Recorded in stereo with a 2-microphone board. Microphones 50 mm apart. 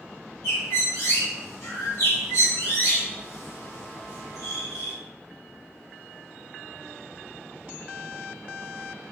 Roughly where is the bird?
Left.